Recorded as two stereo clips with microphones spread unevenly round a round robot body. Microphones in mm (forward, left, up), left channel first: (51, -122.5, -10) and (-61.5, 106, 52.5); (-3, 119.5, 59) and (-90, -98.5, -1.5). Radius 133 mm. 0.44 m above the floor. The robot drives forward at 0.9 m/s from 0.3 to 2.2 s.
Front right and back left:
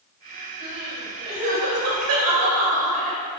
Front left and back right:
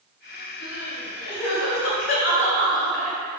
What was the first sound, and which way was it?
Crying, 70° left.